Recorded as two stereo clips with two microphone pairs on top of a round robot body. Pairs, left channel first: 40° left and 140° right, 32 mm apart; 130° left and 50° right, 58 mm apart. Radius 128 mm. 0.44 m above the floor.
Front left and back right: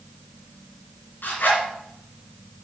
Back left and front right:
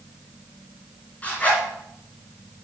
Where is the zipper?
65° left, 3 m.